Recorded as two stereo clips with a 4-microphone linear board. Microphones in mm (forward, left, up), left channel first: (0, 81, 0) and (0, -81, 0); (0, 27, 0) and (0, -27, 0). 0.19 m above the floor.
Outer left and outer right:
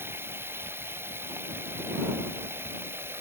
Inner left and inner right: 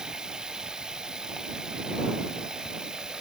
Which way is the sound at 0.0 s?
15° right (ahead or behind).